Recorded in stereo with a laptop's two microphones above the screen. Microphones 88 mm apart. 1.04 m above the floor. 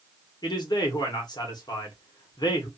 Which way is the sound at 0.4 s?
55° left (ahead or behind).